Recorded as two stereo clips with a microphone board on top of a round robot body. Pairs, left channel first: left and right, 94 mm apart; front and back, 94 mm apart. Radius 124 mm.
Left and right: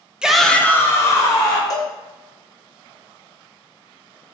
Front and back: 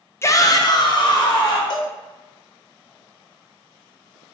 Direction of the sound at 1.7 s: 40° left.